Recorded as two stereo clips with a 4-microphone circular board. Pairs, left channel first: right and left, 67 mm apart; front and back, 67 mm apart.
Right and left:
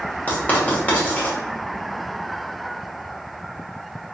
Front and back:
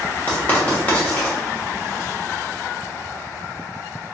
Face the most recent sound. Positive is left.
turn(degrees=-45)